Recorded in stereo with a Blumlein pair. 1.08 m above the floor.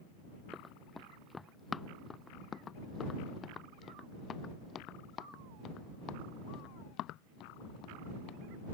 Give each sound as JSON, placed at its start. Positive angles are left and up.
{"t": 0.5, "sound": "running footsteps", "azimuth_deg": 5}